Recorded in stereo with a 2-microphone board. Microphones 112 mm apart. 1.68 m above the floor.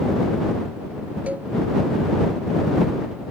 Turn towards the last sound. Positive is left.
turn(degrees=-10)  # may be behind; listen again after turning